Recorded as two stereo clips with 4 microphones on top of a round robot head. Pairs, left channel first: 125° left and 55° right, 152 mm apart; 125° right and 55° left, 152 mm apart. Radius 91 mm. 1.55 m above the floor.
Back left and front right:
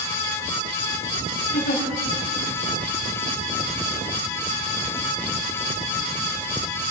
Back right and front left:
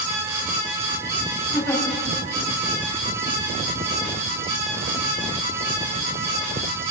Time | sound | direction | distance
1.5 | a giggle | 165° left | 4.5 m